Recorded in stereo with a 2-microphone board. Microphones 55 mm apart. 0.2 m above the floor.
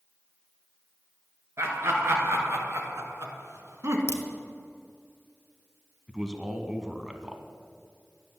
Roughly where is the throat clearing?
I don't hear throat clearing.